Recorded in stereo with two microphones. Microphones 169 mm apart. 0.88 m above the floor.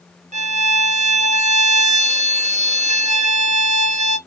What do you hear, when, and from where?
0.3 s a violin: 45° right (ahead or behind), 0.7 m